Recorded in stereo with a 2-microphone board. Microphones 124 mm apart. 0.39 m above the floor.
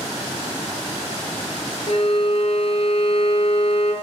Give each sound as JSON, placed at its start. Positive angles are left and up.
{"t": 1.9, "sound": "a violin", "side_deg": 55, "distance_m": 2.0}